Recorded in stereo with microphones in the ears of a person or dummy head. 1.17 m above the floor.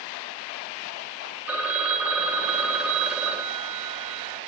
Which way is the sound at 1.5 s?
10° right (ahead or behind).